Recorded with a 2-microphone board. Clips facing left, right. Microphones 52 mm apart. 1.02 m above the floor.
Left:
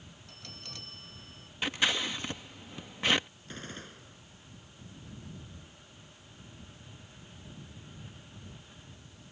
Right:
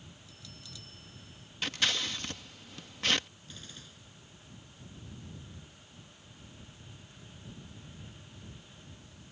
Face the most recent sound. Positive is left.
turn(degrees=40)  # may be behind; listen again after turning